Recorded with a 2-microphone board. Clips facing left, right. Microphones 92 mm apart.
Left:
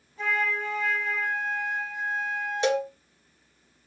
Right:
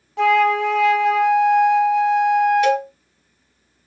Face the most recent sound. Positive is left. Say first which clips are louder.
# right 7 dB
turn(degrees=25)  # may be behind; listen again after turning